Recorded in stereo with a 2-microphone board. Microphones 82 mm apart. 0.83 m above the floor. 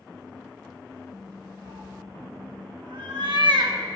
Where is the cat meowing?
65° right (ahead or behind), 0.9 m.